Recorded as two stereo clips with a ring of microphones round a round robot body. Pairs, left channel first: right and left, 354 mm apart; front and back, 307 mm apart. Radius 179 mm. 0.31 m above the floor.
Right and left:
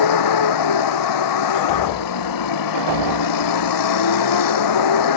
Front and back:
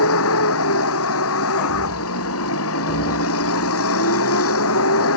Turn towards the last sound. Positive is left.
turn(degrees=-55)